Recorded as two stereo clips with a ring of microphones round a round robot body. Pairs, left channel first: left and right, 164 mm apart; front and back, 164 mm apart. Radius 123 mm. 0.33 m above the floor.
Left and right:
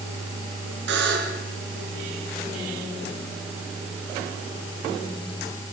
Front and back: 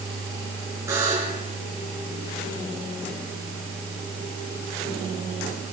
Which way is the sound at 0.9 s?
105° right.